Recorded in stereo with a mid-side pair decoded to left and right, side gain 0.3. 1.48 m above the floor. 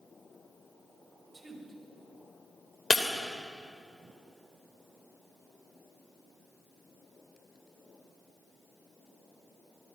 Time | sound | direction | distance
1.3 | a woman speaking | 40° right | 6 m
2.9 | breaking glass | 40° left | 3 m